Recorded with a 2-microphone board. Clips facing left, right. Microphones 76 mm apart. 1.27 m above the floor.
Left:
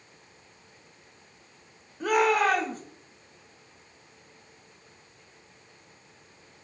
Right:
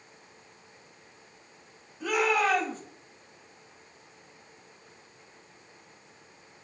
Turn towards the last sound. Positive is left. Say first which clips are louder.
# left 3 dB
turn(degrees=55)  # may be behind; listen again after turning